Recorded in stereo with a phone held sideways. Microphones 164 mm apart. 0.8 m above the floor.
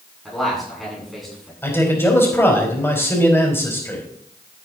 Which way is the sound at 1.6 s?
15° left (ahead or behind).